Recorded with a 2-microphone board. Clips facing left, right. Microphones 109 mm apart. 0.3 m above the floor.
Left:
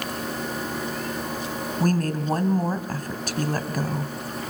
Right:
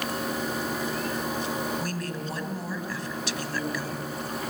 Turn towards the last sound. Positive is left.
turn(degrees=45)  # may be behind; listen again after turning